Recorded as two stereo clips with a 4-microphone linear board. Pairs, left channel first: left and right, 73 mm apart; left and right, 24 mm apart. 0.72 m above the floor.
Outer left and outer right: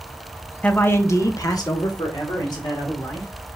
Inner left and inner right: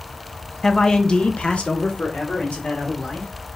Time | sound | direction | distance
0.6 | a man speaking | 15° left (ahead or behind) | 0.7 m